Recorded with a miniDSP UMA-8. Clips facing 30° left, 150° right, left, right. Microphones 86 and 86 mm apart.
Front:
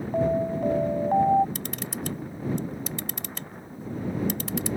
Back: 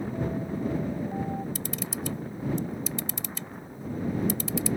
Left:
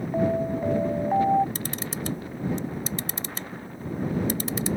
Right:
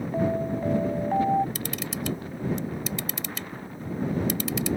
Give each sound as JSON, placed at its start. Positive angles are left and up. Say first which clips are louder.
{"t": 0.1, "sound": "an alarm", "louder": "front 12 dB, left 2 dB", "azimuth_deg": 10}
{"t": 1.6, "sound": "a camera shutter", "louder": "even, even", "azimuth_deg": 40}